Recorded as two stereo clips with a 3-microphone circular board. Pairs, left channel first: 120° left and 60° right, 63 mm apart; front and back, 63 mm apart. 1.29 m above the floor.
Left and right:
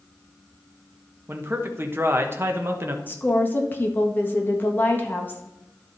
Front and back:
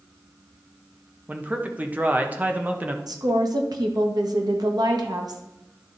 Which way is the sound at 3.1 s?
Straight behind.